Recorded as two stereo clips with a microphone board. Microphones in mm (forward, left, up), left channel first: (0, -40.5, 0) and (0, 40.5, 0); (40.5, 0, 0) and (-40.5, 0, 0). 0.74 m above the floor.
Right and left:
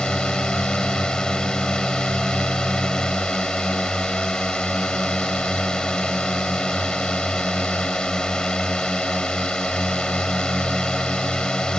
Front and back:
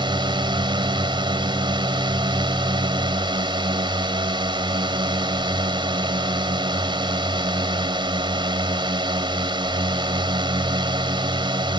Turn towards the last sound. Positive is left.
turn(degrees=-170)